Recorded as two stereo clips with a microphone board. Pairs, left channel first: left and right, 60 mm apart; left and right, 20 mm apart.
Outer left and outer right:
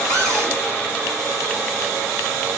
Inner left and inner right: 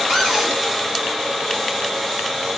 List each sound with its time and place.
0.1 s a cupboard door: 65° right (ahead or behind), 3 m